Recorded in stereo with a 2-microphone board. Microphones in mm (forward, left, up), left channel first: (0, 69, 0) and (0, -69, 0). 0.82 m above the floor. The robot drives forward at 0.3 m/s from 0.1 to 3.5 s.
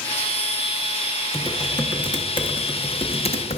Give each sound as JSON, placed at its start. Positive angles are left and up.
{"t": 1.3, "sound": "typing on a keyboard", "side_deg": 25, "distance_m": 1.0}